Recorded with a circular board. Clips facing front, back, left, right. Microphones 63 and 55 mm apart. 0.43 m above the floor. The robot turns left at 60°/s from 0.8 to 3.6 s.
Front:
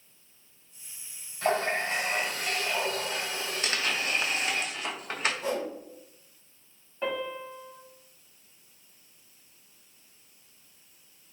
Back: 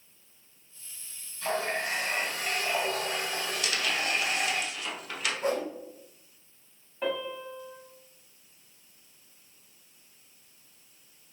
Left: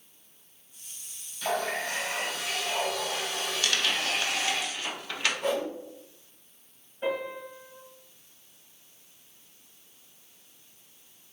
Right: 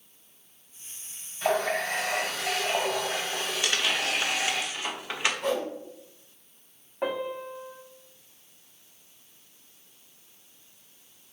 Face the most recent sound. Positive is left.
turn(degrees=-90)